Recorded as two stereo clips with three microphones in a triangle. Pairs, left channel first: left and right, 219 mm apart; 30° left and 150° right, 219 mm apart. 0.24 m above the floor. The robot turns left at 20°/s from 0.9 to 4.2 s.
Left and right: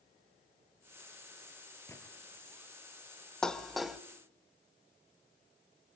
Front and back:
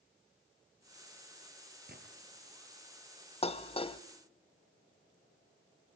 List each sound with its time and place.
1.9 s a gunshot: 170° left, 4.5 m; by 2.0 s 165° left, 4.5 m
3.4 s dishes clattering: 5° left, 0.9 m; by 4.0 s 5° right, 0.9 m